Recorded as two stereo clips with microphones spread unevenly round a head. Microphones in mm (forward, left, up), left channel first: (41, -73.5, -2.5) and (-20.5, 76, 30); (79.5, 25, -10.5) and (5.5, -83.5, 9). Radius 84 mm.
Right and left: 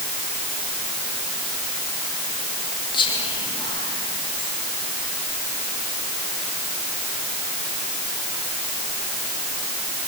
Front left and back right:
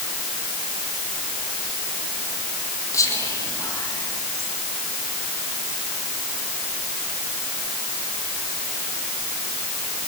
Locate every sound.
2.9 s whispering: 10° right, 1.9 m